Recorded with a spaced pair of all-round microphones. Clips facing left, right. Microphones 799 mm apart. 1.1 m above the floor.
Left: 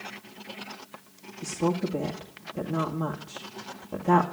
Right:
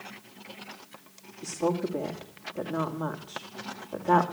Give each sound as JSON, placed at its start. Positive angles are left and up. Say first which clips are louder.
{"t": 1.4, "sound": "a woman speaking", "louder": "left 1 dB", "side_deg": 55, "distance_m": 2.5}